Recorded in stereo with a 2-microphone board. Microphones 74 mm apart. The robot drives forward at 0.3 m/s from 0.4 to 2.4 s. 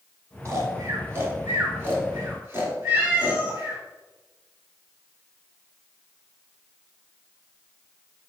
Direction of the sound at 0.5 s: 40° right (ahead or behind).